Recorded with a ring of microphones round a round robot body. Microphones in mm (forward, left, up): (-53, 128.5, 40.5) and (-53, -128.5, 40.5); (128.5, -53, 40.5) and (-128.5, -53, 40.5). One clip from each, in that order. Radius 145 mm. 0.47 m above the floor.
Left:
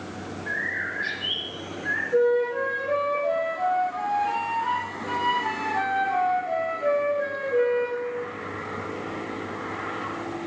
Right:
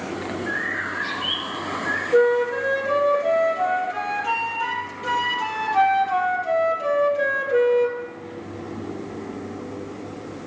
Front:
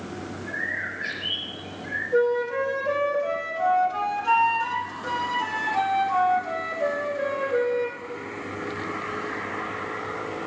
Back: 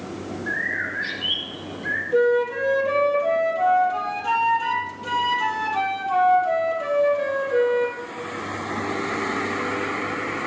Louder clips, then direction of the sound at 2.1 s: Right 4 dB, back 2 dB; 110° right.